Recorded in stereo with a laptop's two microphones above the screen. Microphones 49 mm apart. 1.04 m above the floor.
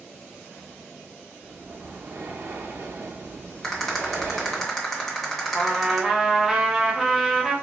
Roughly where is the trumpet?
Centre.